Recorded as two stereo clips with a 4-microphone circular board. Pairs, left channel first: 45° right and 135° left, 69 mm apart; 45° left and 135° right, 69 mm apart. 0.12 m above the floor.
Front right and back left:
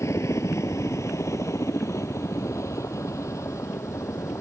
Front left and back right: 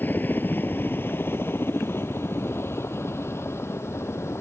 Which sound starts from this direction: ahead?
A helicopter, at 0.0 s.